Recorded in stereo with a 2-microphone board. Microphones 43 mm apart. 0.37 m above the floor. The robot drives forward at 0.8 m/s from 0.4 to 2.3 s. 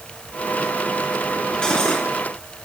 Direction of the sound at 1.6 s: 20° left (ahead or behind).